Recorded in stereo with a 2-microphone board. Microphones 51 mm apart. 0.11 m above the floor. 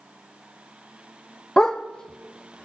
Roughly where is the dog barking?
Centre.